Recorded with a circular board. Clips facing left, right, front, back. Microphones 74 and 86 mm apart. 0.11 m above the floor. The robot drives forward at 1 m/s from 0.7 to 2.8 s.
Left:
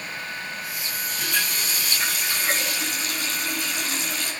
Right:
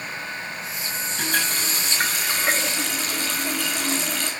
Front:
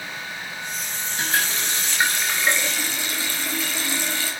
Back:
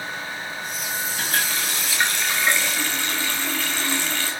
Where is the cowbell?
No cowbell in this recording.